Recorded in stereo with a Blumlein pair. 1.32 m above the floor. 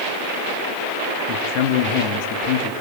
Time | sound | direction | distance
1.3 | a man speaking | 45° left | 2.5 m